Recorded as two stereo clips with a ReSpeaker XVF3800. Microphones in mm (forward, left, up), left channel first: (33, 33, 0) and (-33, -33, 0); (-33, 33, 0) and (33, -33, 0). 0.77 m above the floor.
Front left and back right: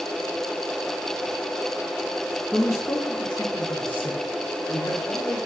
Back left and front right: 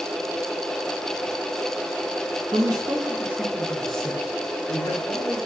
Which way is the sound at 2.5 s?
20° right.